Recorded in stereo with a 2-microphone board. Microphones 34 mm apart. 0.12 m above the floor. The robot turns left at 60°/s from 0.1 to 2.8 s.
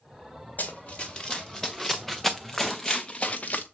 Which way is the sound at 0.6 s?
60° left (ahead or behind).